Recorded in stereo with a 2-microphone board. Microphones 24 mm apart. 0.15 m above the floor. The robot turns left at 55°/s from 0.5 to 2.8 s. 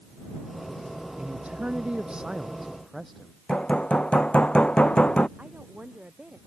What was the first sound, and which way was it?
A man speaking, 90° right.